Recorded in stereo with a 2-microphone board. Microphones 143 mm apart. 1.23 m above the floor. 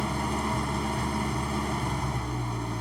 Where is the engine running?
Centre (ahead or behind).